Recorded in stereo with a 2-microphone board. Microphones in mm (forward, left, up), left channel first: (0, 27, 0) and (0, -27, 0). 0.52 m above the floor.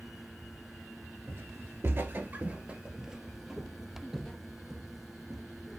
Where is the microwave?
No microwave in this recording.